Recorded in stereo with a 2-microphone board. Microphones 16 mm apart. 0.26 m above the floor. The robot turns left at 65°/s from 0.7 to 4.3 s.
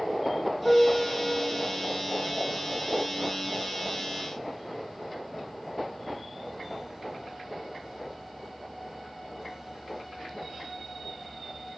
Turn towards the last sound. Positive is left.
turn(degrees=160)